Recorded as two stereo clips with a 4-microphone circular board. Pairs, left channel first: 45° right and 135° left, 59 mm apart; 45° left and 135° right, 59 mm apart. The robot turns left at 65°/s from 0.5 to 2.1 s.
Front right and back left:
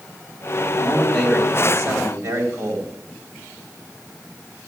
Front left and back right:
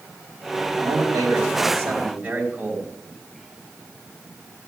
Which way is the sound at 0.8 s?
110° right.